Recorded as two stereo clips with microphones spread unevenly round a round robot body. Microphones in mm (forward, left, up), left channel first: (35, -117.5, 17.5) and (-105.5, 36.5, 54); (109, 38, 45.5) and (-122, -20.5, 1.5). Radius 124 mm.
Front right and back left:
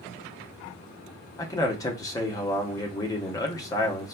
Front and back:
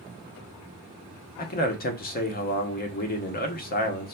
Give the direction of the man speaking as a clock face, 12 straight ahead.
1 o'clock.